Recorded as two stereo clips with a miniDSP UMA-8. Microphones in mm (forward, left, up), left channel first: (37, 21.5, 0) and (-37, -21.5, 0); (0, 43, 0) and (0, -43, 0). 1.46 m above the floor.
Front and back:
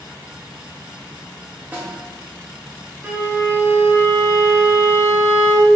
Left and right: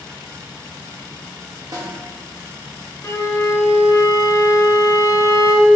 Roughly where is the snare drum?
Right.